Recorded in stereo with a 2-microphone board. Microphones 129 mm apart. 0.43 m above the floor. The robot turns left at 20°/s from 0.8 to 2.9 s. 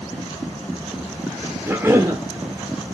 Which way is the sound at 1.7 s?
15° right (ahead or behind).